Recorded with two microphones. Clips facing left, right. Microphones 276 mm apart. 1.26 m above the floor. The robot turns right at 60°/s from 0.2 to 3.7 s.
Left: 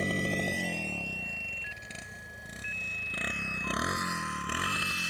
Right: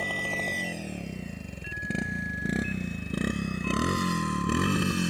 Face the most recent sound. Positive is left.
turn(degrees=-60)  # may be behind; listen again after turning